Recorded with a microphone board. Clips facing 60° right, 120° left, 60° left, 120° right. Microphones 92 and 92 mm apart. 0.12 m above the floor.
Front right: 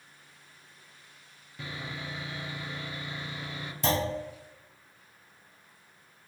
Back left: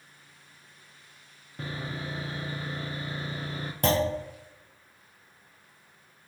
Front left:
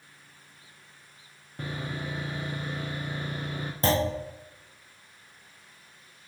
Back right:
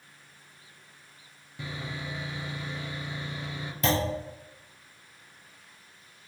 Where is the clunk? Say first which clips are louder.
Back left 4 dB, front left 2 dB; 110° left, 1.7 m.